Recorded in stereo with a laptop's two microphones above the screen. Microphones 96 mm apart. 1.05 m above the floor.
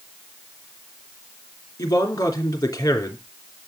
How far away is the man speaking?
About 3 m.